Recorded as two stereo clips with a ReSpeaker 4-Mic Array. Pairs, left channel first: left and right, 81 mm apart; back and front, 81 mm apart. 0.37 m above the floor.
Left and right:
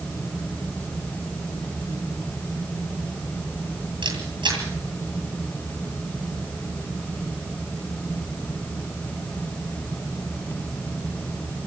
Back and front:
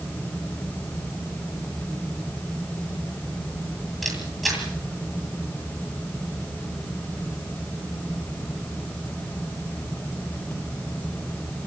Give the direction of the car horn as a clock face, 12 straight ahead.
I don't hear a car horn.